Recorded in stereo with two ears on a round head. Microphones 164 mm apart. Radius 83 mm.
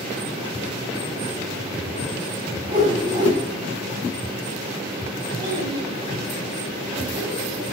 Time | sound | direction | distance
2.7 | a whoosh | 25° right (ahead or behind) | 7.5 m
5.4 | a child speaking | 20° right (ahead or behind) | 7 m